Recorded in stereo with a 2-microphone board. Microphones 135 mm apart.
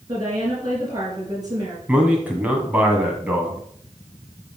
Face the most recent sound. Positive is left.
turn(degrees=-10)  # may be behind; listen again after turning